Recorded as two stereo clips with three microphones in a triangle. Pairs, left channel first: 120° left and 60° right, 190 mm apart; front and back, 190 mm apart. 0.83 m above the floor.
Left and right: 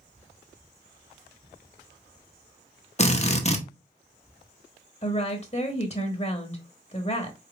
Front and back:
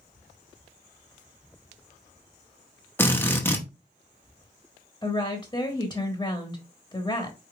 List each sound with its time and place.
3.0 s a drill: 75° left, 0.9 m
5.0 s a woman speaking: 65° left, 1.1 m